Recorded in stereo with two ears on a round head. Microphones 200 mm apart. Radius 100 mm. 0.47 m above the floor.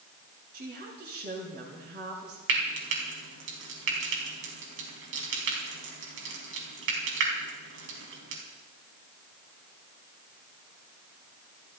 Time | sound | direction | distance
0.5 | a woman speaking | 45° right (ahead or behind) | 7 m
2.5 | frying | 60° right (ahead or behind) | 4.5 m